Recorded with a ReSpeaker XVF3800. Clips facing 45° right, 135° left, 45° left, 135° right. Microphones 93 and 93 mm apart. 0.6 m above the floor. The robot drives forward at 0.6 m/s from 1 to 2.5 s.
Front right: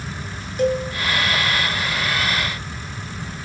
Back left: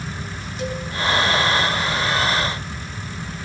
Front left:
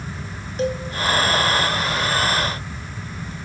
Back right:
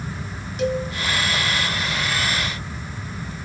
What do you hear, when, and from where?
0.6 s a cowbell: 10° right, 3 m